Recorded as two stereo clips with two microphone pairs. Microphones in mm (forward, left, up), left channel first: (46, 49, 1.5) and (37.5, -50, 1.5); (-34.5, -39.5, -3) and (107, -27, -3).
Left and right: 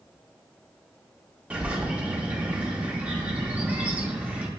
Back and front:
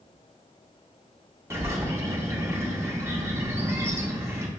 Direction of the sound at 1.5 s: 35° right.